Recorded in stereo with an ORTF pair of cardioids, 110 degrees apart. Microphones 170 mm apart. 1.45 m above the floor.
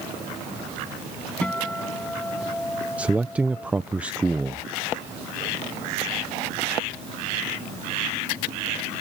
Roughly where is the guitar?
Ahead.